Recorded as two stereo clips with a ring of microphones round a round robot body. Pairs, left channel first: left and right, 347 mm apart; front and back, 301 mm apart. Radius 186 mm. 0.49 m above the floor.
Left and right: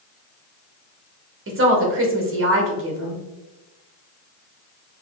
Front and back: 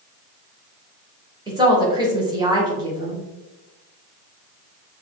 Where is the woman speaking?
115° right, 1.2 m.